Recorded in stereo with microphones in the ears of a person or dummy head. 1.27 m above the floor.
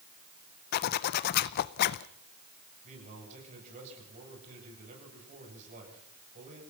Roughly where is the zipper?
Left.